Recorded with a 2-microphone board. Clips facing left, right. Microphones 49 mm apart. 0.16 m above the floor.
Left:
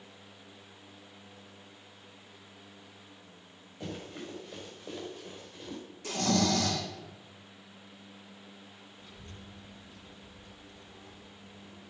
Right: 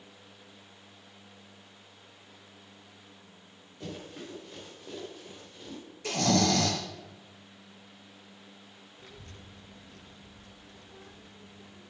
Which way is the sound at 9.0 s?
60° right (ahead or behind).